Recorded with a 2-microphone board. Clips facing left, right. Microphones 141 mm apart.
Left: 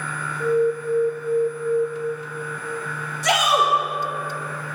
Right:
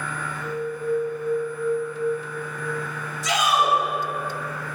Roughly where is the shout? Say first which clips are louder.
Left 2 dB; left.